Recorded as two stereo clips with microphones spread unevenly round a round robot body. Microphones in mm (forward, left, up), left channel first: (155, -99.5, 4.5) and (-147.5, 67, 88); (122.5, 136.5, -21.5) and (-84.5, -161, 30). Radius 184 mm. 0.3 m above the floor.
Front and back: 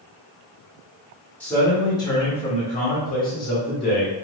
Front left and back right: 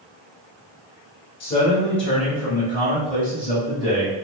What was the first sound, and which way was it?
A man speaking, 25° left.